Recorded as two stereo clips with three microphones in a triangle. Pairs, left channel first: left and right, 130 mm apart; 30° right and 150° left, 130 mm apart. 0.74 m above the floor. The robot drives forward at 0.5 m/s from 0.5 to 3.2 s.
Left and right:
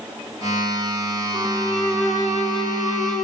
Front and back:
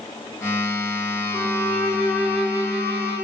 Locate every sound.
1.3 s a violin: 125° right, 3.5 m; by 3.2 s 135° right, 4 m